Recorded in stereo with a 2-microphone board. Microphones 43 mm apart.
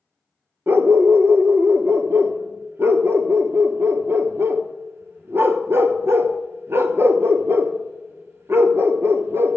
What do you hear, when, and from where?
0.7 s a dog barking: 65° right (ahead or behind), 0.9 m